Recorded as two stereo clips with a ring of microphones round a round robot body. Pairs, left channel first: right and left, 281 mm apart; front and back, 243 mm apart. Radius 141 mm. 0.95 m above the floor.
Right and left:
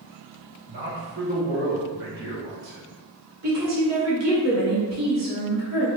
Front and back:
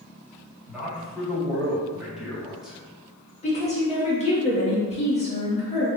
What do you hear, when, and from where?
0.7 s a man speaking: 90° left, 1.9 m
3.4 s a woman speaking: 60° left, 1.7 m